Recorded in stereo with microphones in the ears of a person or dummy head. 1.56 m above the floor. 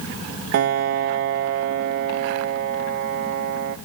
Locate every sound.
0.5 s a piano: 60° right (ahead or behind), 0.5 m